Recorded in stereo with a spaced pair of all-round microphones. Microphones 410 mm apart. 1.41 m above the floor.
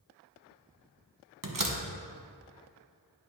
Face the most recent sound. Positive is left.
turn(degrees=-50)  # may be behind; listen again after turning